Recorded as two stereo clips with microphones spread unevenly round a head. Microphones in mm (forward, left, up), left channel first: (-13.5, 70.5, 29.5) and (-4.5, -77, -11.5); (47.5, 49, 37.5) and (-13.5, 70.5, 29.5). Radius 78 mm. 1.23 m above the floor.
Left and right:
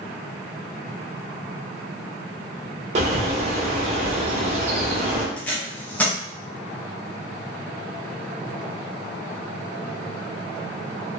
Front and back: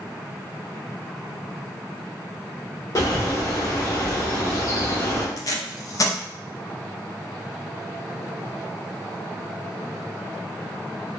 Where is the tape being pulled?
Straight ahead, 0.5 m.